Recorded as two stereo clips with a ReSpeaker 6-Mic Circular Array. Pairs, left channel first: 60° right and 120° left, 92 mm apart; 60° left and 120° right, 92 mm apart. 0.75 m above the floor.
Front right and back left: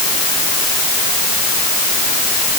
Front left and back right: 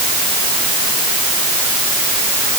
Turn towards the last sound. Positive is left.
No sound to turn to.